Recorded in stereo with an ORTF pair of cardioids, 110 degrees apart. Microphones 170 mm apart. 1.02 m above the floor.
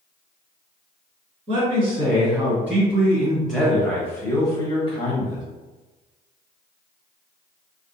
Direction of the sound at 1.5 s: 35° right.